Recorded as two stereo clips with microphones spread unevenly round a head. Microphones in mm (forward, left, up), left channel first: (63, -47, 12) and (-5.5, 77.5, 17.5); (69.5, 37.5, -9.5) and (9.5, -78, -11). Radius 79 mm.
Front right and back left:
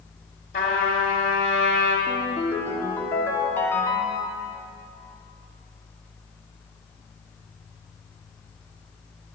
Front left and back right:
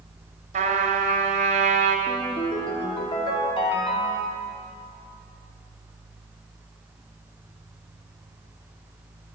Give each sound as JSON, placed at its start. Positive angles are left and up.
{"t": 0.5, "sound": "a trumpet", "azimuth_deg": -95, "distance_m": 2.5}
{"t": 2.1, "sound": "a ringtone", "azimuth_deg": 15, "distance_m": 2.5}